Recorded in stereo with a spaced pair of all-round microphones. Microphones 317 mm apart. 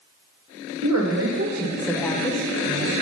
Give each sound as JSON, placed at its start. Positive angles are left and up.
{"t": 0.8, "sound": "a woman speaking", "side_deg": -55, "distance_m": 2.0}